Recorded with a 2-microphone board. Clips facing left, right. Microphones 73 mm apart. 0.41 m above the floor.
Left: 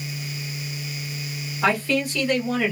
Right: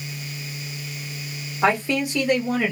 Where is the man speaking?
20° right (ahead or behind), 1.0 m; by 2.7 s 15° right (ahead or behind), 1.2 m.